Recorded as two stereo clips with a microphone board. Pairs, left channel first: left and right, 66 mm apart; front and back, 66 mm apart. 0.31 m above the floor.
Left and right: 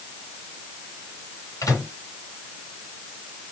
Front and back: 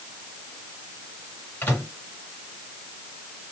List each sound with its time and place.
1.6 s a microwave: 55° left, 2.5 m